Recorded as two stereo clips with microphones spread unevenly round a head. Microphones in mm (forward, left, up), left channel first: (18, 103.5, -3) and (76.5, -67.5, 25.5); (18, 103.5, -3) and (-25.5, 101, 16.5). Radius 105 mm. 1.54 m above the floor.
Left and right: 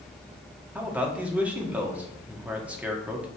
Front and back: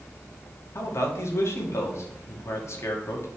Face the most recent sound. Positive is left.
turn(degrees=10)